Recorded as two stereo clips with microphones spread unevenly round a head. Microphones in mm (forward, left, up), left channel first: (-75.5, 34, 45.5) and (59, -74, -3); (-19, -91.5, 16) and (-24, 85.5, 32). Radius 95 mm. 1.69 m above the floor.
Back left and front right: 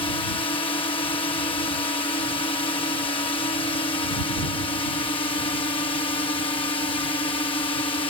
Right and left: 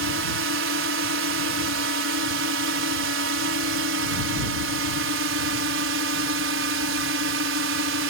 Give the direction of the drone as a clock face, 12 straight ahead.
10 o'clock.